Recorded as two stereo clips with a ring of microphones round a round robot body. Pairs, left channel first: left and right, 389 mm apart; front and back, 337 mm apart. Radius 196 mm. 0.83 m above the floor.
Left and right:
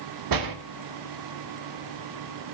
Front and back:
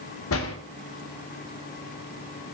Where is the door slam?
55° right, 1.2 m.